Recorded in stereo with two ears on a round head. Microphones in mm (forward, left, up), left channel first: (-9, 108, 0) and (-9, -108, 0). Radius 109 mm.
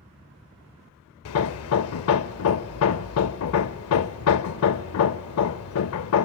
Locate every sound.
1.2 s hammering: 65° left (ahead or behind), 0.6 m